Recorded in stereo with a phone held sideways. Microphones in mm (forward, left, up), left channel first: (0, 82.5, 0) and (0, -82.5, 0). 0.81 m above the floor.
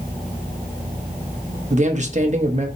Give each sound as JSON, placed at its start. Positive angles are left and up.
{"t": 1.7, "sound": "a man speaking", "side_deg": -45, "distance_m": 0.8}